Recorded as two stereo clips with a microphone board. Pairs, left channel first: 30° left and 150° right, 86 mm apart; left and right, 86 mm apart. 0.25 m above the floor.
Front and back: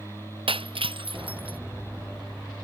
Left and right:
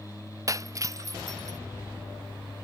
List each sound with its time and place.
0.5 s breaking glass: 145° right